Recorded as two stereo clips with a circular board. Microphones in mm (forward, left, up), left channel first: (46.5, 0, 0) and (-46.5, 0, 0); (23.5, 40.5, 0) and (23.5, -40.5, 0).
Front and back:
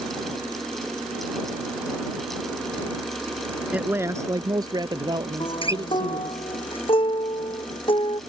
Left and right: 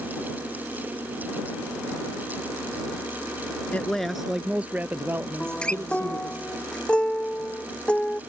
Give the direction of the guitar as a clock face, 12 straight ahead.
12 o'clock.